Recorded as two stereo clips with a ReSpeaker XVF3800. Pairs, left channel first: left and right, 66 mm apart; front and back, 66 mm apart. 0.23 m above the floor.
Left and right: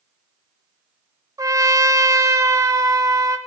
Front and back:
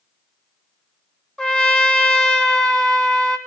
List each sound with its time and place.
1.4 s a trumpet: 80° right, 0.8 m